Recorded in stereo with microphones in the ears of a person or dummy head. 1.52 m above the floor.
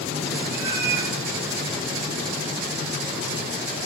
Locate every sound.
0.5 s a cat meowing: 55° right (ahead or behind), 4.5 m